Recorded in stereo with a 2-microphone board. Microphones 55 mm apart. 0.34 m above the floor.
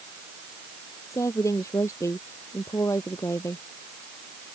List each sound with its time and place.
1.1 s a woman speaking: 65° left (ahead or behind)